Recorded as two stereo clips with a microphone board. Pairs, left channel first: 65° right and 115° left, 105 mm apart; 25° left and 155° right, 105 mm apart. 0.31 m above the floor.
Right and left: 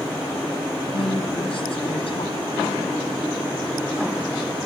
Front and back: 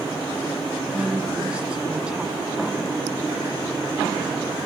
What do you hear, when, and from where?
0.9 s a woman speaking: 80° right, 3 m